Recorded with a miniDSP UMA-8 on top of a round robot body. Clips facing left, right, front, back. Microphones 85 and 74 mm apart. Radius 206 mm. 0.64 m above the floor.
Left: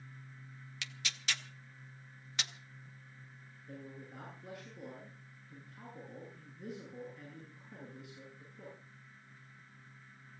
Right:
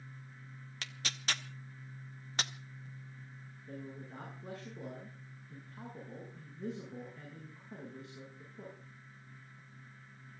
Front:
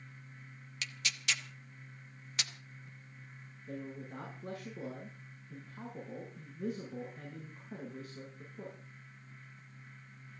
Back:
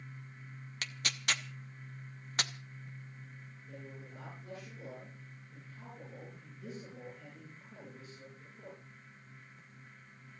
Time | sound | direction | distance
0.8 | tearing paper | 135° right | 1.1 m
3.7 | a man speaking | 35° right | 9.5 m